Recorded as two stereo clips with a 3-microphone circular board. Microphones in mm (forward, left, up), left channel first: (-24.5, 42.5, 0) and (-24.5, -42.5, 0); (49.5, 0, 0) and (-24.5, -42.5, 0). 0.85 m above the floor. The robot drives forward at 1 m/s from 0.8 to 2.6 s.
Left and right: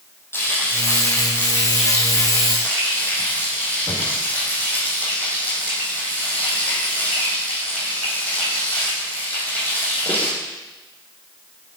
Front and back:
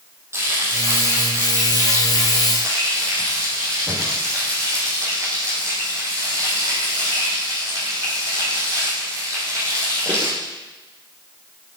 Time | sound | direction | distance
0.3 | frying | 150° left | 6.5 m